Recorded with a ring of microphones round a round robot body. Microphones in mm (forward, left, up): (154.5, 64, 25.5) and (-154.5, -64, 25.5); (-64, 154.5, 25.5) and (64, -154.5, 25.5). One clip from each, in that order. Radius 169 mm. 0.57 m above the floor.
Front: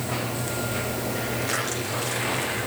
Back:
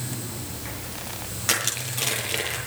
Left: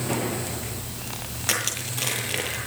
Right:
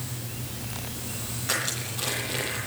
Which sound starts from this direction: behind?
Crushing, at 1.5 s.